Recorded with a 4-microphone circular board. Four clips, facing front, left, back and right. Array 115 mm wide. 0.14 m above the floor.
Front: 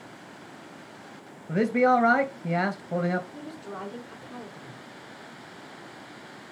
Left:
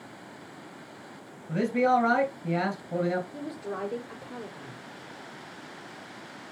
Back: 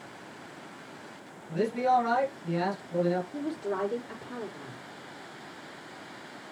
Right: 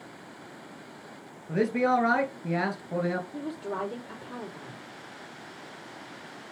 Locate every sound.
1.5 s a man speaking: 15° right, 2.5 m
3.3 s a woman speaking: 150° right, 5.5 m